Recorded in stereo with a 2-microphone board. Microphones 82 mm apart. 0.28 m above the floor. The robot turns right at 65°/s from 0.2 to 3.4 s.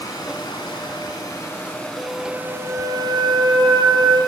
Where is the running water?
60° left, 0.9 m; by 4.3 s 95° right, 0.9 m.